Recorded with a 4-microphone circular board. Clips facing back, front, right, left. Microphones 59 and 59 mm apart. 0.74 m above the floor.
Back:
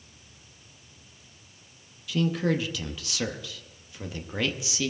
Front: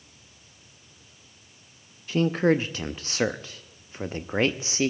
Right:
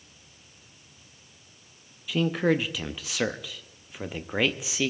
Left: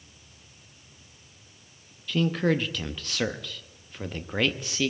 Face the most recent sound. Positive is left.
turn(degrees=-15)